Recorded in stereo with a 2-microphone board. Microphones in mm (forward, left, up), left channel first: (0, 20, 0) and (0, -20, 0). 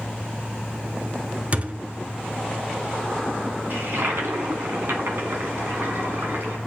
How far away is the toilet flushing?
About 2.5 m.